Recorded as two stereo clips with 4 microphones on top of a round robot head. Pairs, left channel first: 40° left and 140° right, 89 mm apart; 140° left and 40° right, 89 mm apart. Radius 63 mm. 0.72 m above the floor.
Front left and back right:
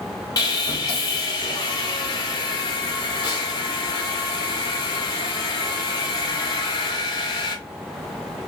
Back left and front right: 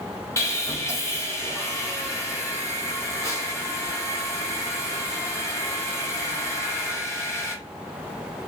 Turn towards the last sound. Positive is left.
turn(degrees=85)